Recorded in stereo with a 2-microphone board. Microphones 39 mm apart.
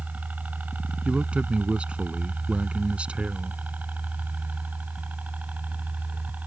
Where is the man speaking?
30° right (ahead or behind).